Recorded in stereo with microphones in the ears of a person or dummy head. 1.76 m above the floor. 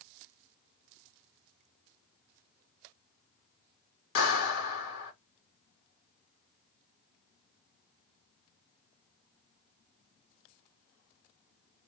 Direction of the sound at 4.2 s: 75° left (ahead or behind).